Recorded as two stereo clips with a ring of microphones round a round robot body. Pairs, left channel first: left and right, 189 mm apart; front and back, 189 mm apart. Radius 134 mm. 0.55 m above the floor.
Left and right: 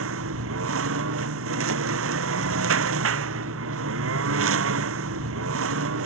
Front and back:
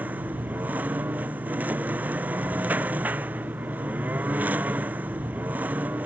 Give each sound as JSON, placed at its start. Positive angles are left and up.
{"t": 0.0, "sound": "a lawn mower", "azimuth_deg": -95}